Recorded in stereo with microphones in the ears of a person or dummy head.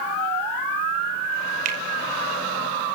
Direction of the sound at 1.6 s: 45° right (ahead or behind).